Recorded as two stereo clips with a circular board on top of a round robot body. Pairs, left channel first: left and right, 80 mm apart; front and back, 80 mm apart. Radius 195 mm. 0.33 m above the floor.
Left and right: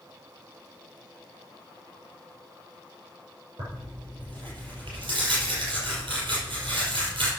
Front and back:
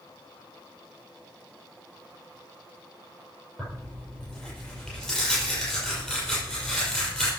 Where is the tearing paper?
85° right, 6 m.